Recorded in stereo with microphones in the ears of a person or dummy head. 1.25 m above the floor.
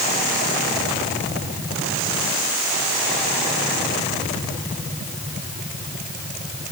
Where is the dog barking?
I don't hear a dog barking.